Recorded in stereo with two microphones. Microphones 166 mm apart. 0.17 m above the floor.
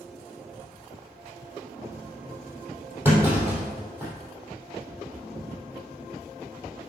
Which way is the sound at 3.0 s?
15° right (ahead or behind).